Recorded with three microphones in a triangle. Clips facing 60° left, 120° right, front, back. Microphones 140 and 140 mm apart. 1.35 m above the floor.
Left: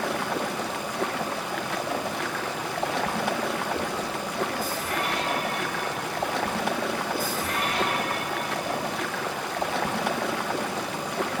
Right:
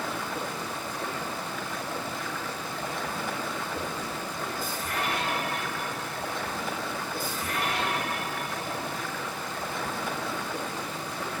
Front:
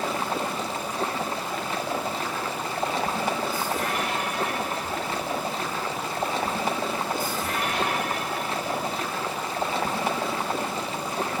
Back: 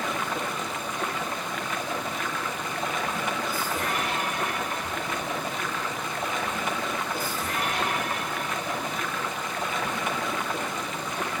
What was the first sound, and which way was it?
Running water, 60° left.